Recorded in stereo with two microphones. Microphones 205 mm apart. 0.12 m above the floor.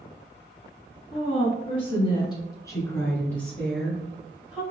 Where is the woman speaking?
30° left (ahead or behind), 1.4 m; by 4.6 s 5° right (ahead or behind), 1.8 m.